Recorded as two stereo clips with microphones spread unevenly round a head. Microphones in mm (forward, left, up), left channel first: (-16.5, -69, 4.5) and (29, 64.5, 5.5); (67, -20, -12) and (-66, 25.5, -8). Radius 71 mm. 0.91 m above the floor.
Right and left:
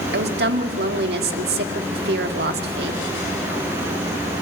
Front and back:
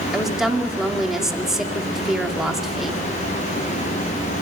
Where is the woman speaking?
75° left, 2 m.